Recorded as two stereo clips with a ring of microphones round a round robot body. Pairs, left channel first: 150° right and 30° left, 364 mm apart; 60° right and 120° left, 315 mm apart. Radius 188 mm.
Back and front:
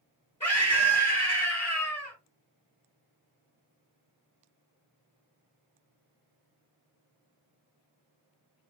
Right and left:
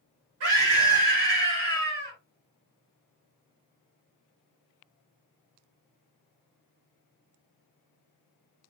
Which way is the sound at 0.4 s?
130° left.